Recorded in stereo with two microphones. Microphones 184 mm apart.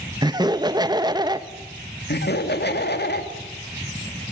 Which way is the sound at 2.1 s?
65° left (ahead or behind).